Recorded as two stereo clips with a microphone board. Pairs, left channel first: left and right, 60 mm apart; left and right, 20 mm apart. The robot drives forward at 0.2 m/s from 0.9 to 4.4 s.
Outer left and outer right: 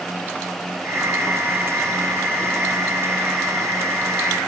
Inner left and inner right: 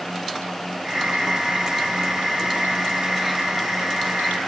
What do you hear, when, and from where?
Only background noise.